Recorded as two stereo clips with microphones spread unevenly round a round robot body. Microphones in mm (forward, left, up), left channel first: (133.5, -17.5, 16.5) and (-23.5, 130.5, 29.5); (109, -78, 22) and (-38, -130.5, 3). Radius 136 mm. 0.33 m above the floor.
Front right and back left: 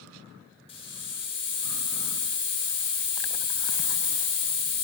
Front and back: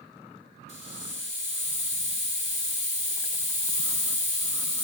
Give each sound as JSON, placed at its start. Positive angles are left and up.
{"t": 0.7, "sound": "a hiss", "azimuth_deg": 0, "distance_m": 0.9}